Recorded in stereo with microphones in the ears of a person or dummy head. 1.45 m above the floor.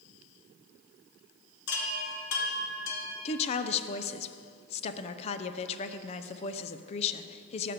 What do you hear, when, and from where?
1.7 s a chime: 70° left (ahead or behind), 1.6 m
3.2 s a woman speaking: 35° left (ahead or behind), 0.7 m